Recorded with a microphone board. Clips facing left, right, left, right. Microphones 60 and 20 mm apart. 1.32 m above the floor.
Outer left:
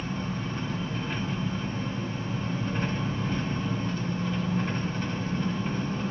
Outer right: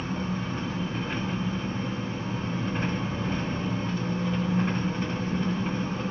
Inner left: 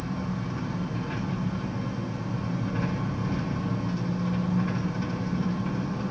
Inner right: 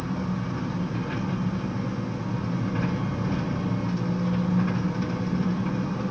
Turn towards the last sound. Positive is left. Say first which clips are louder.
# outer right 2 dB, inner right 2 dB
turn(degrees=-15)  # may be behind; listen again after turning